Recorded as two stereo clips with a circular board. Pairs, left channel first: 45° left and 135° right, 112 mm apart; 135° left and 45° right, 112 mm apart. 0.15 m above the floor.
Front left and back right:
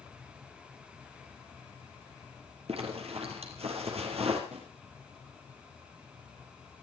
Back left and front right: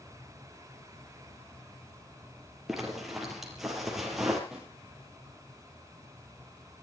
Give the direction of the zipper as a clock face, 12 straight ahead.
4 o'clock.